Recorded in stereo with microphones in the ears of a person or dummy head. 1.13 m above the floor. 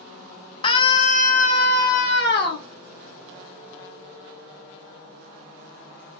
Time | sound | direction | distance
0.6 | a scream | 20° left (ahead or behind) | 0.7 m